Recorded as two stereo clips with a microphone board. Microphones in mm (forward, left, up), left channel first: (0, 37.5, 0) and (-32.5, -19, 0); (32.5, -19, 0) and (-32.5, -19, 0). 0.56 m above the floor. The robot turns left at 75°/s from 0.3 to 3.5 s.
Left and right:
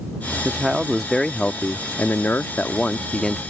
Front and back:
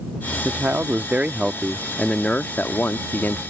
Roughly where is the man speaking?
Behind.